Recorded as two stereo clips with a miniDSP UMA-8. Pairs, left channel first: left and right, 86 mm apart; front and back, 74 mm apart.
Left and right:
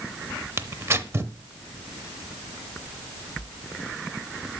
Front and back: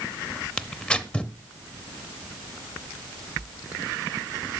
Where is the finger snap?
I don't hear a finger snap.